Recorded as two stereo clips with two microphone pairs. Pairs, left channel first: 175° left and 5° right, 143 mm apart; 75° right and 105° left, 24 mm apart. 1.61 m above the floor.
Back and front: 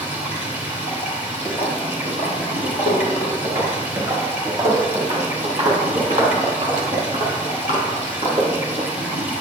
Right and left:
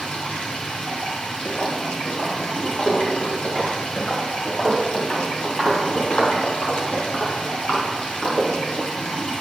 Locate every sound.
0.0 s running water: 80° right, 2.5 m
1.4 s footsteps: 115° right, 3 m; by 3.3 s 125° right, 4.5 m
3.4 s footsteps: 55° right, 1.7 m; by 8.9 s 60° right, 4.5 m